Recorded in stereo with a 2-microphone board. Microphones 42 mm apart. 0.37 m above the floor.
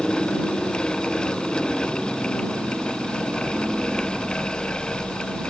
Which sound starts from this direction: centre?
A helicopter, at 0.0 s.